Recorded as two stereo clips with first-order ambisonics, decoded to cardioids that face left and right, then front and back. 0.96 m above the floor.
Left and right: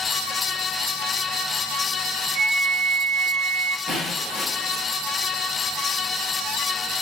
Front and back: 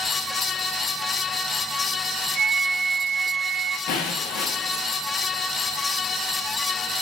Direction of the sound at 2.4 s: 105° right.